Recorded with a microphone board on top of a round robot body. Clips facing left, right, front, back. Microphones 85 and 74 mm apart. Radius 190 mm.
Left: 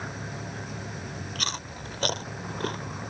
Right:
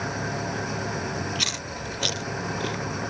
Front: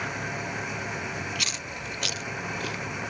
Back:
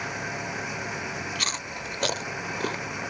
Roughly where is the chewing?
Behind left.